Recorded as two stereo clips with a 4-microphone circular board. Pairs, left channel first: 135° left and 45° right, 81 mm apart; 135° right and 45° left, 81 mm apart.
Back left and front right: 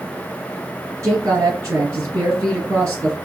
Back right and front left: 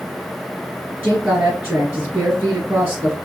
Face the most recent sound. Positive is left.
turn(degrees=-10)